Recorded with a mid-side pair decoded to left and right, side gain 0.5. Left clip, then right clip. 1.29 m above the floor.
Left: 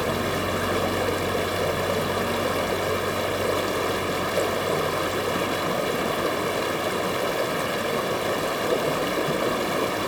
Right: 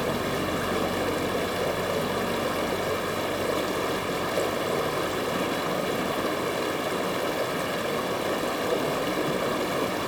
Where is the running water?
30° left, 2.5 m.